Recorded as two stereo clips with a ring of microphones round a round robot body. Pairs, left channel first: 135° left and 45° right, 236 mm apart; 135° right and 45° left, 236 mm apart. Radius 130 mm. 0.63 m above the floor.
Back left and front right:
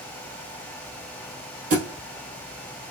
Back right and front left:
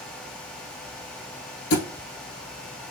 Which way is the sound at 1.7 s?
100° right.